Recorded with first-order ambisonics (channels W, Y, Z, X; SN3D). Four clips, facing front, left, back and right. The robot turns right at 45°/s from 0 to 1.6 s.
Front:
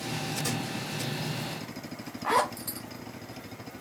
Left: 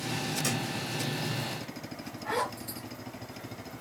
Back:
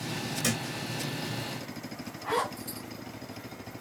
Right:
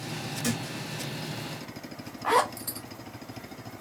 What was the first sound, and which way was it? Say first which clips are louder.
A thud: right 3 dB, back 5 dB; 175° right.